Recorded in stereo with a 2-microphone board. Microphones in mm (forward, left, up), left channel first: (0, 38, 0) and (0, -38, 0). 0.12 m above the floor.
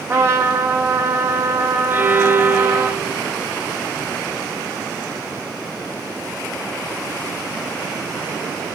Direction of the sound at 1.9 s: 30° right (ahead or behind).